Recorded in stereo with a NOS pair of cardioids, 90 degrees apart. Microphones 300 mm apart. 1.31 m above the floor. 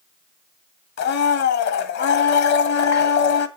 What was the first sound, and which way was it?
A blender, 60° left.